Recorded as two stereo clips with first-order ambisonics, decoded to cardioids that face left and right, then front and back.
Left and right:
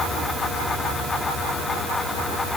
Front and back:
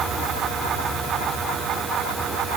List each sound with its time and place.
Only background noise.